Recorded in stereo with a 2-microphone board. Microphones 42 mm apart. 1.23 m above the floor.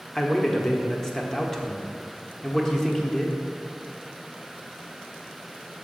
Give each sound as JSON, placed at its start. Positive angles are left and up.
{"t": 0.1, "sound": "a man speaking", "side_deg": 10, "distance_m": 1.1}